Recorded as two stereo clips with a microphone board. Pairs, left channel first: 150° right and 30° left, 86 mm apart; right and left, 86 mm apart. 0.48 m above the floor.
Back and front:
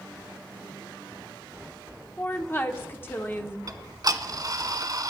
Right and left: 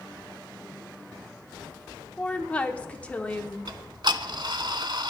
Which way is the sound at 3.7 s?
70° left.